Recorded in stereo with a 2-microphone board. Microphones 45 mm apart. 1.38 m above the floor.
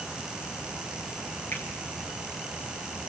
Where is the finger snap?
45° left (ahead or behind), 10 m.